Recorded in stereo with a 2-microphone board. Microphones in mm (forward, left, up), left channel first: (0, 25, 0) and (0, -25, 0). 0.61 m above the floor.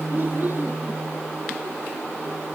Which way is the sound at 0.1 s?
40° right (ahead or behind).